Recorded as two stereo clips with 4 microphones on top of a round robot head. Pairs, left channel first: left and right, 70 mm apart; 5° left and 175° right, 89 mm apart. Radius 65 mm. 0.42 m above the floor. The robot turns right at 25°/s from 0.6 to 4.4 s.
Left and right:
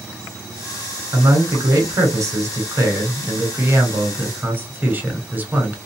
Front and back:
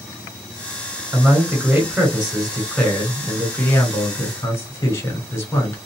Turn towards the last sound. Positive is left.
turn(degrees=-40)